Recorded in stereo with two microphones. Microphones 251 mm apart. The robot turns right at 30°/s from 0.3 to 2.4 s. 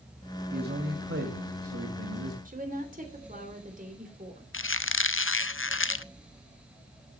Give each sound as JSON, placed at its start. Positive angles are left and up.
{"t": 0.5, "sound": "a man speaking", "azimuth_deg": -140, "distance_m": 1.9}
{"t": 2.5, "sound": "a woman speaking", "side_deg": -35, "distance_m": 3.0}
{"t": 4.5, "sound": "a squeak", "side_deg": 55, "distance_m": 0.5}